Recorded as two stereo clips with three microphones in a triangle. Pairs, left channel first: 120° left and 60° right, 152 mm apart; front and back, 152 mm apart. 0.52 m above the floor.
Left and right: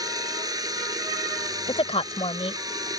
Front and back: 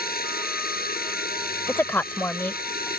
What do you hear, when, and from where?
0.0 s running water: 5° left
1.7 s a woman speaking: 75° left